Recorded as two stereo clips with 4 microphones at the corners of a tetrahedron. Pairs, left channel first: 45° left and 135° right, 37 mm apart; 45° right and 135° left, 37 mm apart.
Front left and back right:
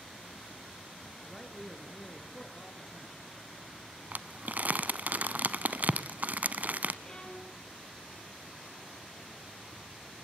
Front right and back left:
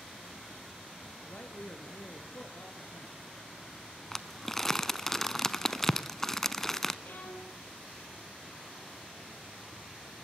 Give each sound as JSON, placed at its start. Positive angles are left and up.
{"t": 1.2, "sound": "a man speaking", "azimuth_deg": -35, "distance_m": 3.0}
{"t": 4.1, "sound": "crumpling", "azimuth_deg": -120, "distance_m": 0.9}
{"t": 7.0, "sound": "a violin", "azimuth_deg": -20, "distance_m": 4.0}